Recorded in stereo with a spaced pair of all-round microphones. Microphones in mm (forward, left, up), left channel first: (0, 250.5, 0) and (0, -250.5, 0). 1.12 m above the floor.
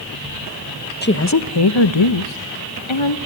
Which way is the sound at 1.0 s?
20° left (ahead or behind).